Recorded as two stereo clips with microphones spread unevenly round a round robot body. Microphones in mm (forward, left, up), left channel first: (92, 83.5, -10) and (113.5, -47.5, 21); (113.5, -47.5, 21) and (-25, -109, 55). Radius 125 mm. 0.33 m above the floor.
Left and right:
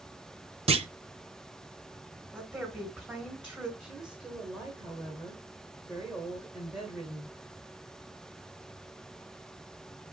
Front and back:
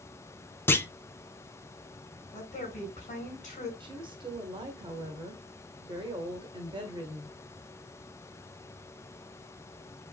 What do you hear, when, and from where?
0.7 s a clunk: 40° right, 0.7 m
2.3 s a woman speaking: 5° left, 3.5 m
3.8 s a woman speaking: 170° left, 1.2 m